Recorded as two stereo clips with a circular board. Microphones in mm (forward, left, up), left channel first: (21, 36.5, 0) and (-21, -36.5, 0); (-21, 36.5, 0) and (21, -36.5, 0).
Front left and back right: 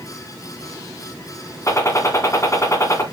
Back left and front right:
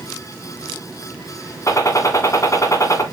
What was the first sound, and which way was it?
A gunshot, 90° left.